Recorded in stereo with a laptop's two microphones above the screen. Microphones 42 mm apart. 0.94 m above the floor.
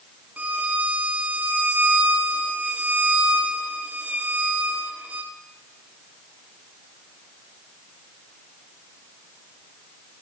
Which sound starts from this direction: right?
A violin, at 0.4 s.